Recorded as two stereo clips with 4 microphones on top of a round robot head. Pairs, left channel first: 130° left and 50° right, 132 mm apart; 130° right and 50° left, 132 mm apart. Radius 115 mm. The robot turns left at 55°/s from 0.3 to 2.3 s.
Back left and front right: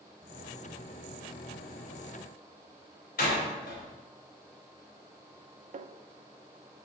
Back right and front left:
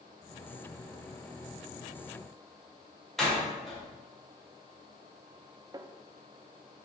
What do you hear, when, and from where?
3.2 s a door slam: 140° left, 3 m
5.7 s a snare drum: 15° right, 0.6 m